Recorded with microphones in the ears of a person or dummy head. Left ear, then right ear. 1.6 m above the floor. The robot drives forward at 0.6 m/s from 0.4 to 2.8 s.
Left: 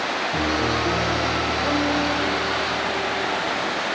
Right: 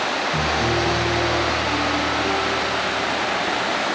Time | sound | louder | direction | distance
0.3 | a piano | right 1 dB | 45° left (ahead or behind) | 2 m